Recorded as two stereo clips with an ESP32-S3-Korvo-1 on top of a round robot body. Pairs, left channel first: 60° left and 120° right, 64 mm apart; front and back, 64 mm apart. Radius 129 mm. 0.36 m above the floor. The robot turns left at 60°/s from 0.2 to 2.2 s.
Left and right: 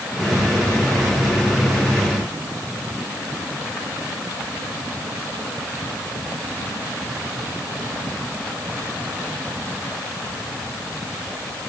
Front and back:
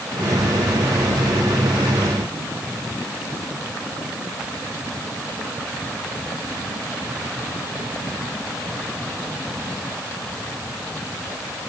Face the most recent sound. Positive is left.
No sound to turn to.